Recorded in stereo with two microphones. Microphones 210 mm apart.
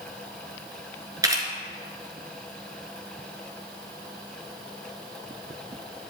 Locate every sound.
1.2 s a camera shutter: 15° right (ahead or behind), 1.3 m